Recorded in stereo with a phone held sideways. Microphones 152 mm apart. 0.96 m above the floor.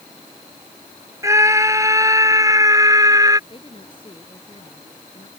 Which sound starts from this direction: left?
A woman speaking, at 3.5 s.